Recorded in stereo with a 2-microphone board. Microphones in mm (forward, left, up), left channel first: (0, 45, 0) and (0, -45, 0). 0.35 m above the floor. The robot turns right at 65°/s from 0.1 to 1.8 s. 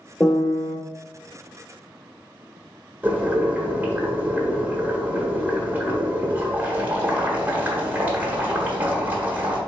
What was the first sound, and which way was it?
A piano, 30° left.